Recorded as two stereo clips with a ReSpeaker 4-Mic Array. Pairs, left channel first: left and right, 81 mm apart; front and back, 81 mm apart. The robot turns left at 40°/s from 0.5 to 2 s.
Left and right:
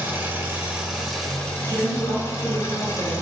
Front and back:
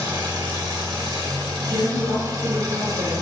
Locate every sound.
0.0 s an engine running: 155° right, 2.5 m; by 3.2 s 145° left, 2.5 m
1.6 s a woman speaking: 130° right, 3 m; by 3.2 s 150° right, 3 m